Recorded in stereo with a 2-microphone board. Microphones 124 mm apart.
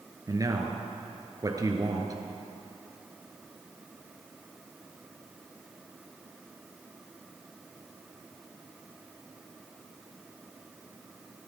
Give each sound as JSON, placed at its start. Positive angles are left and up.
{"t": 0.3, "sound": "a man speaking", "side_deg": -30, "distance_m": 2.0}